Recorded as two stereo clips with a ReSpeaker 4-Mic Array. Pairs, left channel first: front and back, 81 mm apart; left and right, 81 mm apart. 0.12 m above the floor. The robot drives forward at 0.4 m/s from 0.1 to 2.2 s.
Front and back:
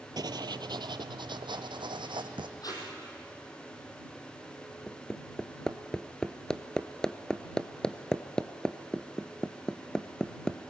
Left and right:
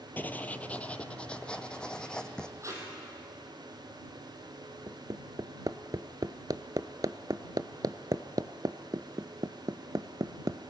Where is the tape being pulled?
40° right, 4.5 m.